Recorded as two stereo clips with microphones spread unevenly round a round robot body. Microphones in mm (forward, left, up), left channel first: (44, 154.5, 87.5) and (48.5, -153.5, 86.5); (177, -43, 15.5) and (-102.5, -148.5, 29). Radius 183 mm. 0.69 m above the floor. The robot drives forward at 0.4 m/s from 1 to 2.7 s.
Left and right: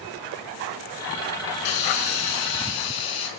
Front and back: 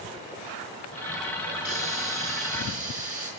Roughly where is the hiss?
Left.